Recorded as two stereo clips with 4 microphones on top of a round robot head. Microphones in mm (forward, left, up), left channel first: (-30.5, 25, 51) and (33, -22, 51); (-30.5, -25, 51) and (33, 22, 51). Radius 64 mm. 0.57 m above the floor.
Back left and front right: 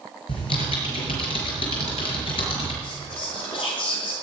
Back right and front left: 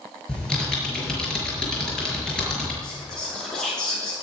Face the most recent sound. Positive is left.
turn(degrees=135)